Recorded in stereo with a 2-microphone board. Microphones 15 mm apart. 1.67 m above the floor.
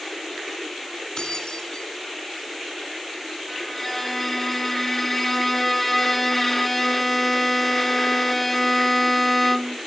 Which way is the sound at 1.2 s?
40° left (ahead or behind).